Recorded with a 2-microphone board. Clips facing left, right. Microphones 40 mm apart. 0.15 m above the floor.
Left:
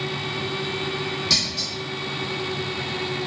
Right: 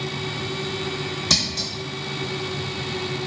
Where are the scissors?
60° right (ahead or behind), 0.9 m.